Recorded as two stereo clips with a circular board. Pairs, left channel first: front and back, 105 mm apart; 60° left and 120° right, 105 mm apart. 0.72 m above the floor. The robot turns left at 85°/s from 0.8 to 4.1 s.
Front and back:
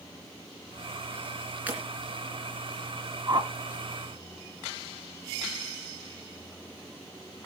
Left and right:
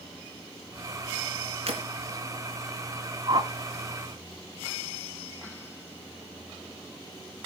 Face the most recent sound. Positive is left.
turn(degrees=150)